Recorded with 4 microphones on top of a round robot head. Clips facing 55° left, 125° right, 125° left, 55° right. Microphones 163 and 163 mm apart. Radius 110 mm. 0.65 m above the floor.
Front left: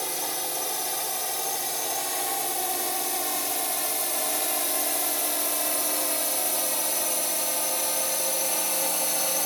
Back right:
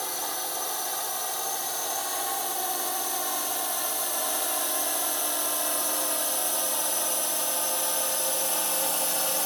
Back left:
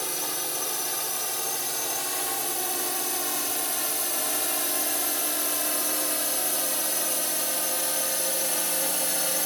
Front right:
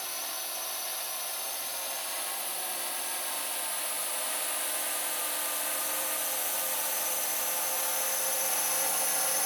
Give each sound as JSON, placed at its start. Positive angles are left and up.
{"t": 0.0, "sound": "a drone", "azimuth_deg": 125}